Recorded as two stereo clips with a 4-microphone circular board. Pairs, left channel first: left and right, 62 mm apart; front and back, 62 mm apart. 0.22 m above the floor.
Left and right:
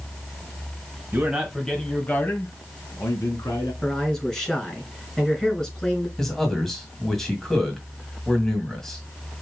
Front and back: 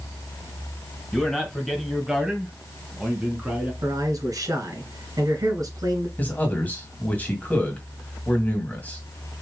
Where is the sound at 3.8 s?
170° left, 2.5 m.